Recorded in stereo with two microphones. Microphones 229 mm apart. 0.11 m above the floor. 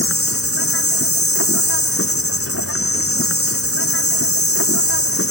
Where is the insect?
75° left (ahead or behind).